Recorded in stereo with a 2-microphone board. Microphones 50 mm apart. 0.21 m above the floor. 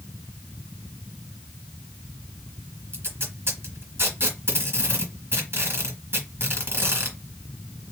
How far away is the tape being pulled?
About 2.5 m.